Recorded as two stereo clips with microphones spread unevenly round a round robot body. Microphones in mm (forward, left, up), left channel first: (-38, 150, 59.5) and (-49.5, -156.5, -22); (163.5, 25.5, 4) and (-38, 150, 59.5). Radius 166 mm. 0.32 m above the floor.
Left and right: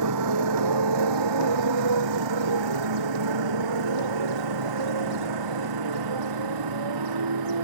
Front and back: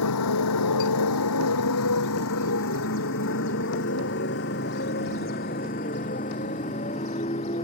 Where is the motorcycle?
55° right; by 7.6 s 105° right.